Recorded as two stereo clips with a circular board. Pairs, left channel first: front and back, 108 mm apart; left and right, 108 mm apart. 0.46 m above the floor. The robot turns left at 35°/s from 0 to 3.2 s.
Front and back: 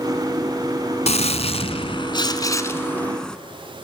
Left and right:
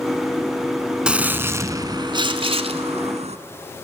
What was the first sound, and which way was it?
A gunshot, 10° right.